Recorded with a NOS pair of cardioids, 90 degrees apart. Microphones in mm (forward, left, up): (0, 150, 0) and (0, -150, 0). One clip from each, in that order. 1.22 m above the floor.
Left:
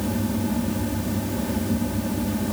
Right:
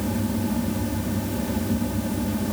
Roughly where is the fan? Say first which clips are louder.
Left 1 dB; ahead.